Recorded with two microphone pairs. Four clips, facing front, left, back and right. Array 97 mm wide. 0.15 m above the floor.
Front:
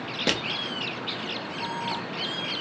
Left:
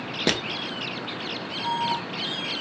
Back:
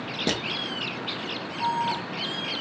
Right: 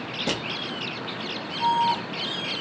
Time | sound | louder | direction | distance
0.3 | crushing | left 3 dB, even | 85° left | 0.8 m
1.6 | an alarm | right 5 dB, back 7 dB | 155° right | 2.0 m